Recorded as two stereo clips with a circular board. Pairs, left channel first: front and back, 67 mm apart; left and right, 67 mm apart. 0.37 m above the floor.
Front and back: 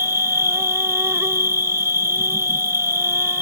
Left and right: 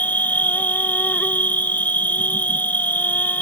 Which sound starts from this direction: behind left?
An insect, at 0.0 s.